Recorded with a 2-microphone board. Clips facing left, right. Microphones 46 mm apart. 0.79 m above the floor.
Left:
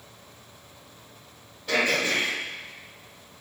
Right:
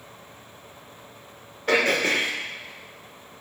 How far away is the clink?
No clink in this recording.